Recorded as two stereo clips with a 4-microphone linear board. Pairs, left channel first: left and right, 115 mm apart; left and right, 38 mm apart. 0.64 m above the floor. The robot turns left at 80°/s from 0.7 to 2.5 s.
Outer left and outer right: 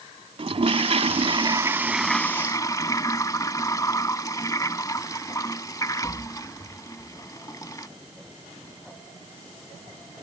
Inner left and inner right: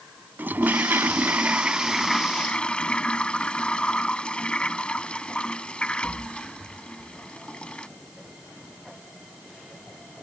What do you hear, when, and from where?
0.4 s a toilet flushing: 70° right; by 7.9 s 145° left